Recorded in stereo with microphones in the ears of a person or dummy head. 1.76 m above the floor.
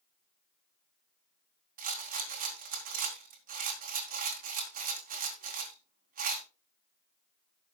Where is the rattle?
55° right (ahead or behind), 2 m.